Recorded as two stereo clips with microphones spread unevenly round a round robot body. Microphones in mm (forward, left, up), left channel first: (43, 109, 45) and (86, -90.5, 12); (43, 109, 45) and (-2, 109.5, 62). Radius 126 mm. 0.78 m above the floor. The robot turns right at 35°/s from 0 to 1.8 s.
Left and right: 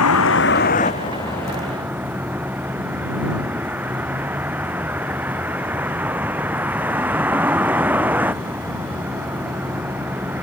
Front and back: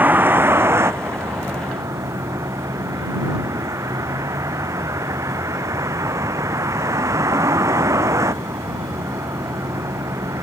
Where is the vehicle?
135° left; by 10.4 s 160° right.